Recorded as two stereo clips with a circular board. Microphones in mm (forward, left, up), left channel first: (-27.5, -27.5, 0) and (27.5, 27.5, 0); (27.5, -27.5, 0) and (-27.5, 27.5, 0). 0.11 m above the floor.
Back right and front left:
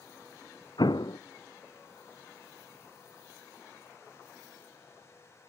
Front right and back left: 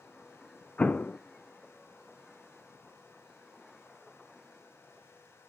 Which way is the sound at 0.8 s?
115° right.